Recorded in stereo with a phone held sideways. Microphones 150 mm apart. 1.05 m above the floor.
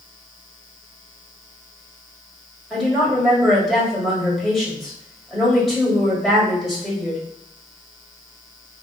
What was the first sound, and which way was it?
A woman speaking, centre (ahead or behind).